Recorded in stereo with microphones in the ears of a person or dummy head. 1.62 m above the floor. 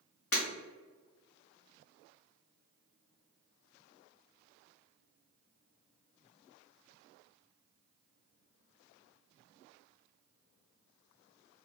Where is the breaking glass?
60° left (ahead or behind), 1.7 m.